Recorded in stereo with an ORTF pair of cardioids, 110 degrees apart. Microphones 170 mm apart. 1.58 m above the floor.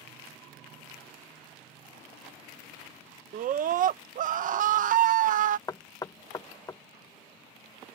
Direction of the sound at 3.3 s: 50° right.